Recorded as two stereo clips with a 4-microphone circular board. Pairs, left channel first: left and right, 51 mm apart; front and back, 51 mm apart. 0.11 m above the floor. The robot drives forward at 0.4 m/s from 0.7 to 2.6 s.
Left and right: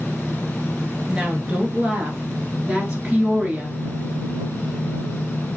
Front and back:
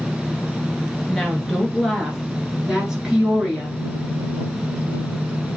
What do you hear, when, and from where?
1.1 s a woman speaking: 70° right, 1.5 m; by 3.8 s 120° right, 1.6 m